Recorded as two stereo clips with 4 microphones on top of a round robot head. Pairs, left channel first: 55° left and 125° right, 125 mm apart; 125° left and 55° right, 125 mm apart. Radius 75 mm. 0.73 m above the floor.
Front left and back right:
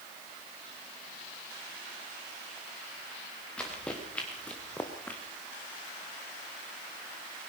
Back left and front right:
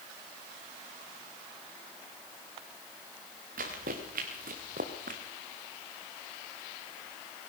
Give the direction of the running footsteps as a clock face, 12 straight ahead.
1 o'clock.